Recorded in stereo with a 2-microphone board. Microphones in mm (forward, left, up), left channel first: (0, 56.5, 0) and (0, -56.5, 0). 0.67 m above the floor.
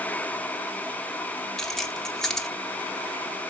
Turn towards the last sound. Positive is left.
turn(degrees=5)  # may be behind; listen again after turning